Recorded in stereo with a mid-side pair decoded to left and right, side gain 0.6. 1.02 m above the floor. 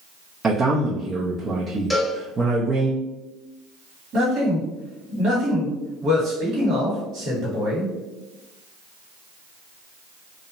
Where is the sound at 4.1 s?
60° right, 1.7 m.